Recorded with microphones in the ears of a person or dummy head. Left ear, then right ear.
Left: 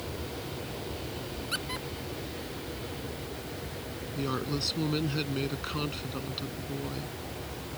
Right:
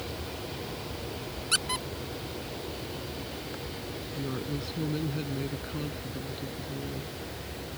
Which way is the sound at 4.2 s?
45° left (ahead or behind).